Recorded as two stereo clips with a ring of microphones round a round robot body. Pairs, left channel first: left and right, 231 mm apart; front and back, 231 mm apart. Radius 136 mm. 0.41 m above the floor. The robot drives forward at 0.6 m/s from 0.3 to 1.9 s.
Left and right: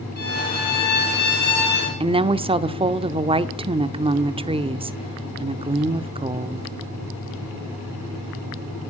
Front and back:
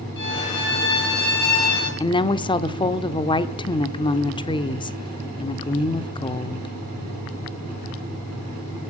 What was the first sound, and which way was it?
A violin, 40° left.